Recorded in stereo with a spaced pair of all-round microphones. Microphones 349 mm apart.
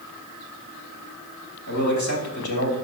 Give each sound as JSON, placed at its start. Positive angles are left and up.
{"t": 1.7, "sound": "a man speaking", "side_deg": 55, "distance_m": 3.0}